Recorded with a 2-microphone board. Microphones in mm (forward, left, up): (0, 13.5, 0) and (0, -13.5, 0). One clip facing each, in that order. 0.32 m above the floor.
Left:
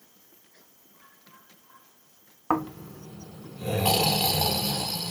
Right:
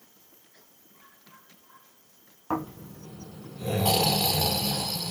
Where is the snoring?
50° left (ahead or behind), 0.7 m.